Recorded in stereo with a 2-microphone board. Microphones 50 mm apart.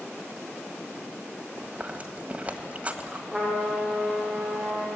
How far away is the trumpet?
About 8.5 m.